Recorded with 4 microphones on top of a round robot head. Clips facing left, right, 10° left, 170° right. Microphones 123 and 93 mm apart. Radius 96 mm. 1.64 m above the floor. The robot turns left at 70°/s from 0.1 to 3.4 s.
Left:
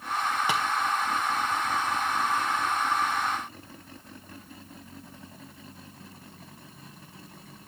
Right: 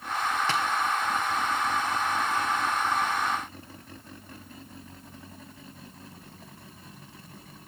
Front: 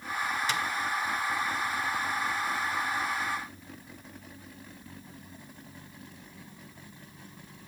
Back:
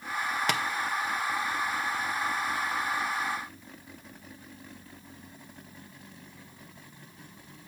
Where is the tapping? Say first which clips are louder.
Left 1 dB, back 4 dB; 170° left, 0.8 m; by 0.6 s 160° left, 0.8 m.